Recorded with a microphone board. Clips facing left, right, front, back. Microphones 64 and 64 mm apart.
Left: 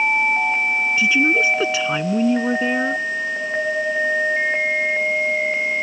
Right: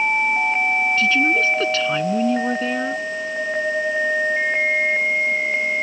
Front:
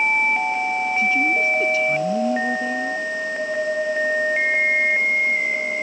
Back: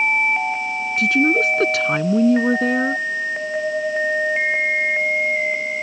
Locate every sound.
1.0 s a woman speaking: 165° left